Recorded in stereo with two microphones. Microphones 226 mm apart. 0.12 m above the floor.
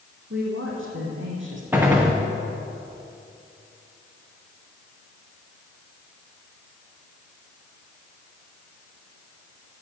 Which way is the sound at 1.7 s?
10° right (ahead or behind).